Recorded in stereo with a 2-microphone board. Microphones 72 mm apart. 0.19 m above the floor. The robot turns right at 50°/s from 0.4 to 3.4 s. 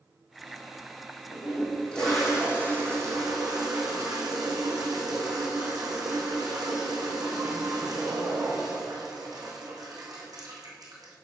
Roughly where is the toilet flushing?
Behind left.